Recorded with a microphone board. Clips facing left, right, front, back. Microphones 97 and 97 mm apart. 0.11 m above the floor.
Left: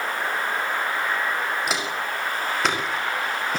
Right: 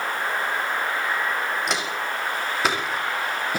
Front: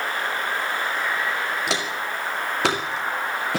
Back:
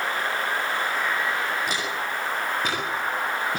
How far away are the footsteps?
About 6 m.